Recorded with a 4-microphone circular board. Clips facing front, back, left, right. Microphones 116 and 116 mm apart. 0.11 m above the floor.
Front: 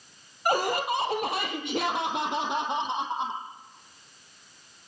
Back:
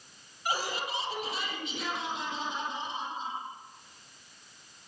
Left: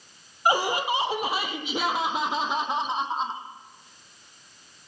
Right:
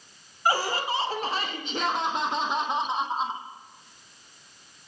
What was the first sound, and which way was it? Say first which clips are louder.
Laughter: front 8 dB, left 2 dB; 20° left.